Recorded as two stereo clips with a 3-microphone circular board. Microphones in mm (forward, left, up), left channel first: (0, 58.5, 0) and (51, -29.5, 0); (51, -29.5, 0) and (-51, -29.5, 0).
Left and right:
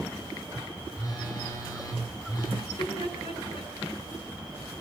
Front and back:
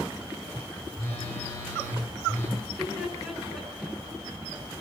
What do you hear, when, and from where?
0.9 s a phone buzzing: 65° left, 6 m
2.6 s laughter: 90° left, 8 m